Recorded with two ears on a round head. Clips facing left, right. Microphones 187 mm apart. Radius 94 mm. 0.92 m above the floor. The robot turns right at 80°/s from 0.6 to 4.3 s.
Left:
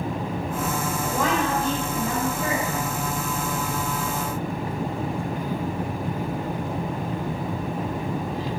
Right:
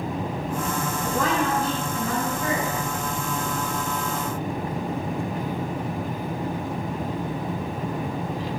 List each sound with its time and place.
1.0 s a woman speaking: straight ahead, 4.5 m; by 2.7 s 130° left, 4.5 m